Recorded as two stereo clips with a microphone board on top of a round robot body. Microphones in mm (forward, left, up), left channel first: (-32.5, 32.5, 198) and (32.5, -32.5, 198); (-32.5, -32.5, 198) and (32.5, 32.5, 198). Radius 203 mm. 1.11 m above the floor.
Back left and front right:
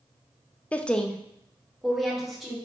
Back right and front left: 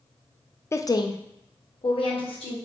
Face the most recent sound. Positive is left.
turn(degrees=-135)